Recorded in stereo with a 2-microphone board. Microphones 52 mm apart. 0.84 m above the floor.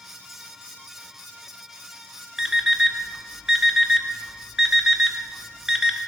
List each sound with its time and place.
2.4 s an alarm clock: 10° right (ahead or behind), 0.5 m